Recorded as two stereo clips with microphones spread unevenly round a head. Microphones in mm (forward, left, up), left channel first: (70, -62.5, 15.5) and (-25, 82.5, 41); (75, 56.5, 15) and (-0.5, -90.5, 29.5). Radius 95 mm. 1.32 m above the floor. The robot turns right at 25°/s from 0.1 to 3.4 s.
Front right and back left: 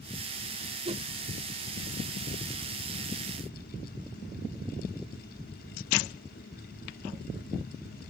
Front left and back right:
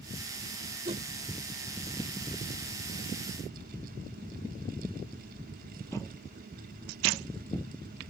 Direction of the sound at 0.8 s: Straight behind.